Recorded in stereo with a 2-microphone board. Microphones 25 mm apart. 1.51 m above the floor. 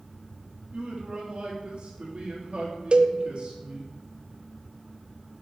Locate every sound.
0.7 s a man speaking: 50° right (ahead or behind), 2.5 m
2.9 s a cowbell: 45° right (ahead or behind), 0.6 m